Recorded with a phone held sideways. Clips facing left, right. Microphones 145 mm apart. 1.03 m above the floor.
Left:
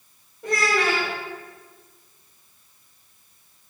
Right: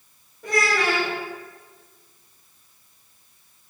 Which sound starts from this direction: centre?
A child speaking, at 0.4 s.